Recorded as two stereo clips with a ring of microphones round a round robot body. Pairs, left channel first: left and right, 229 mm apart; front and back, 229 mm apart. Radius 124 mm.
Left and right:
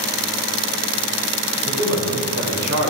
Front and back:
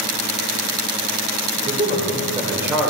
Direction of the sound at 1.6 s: 130° right.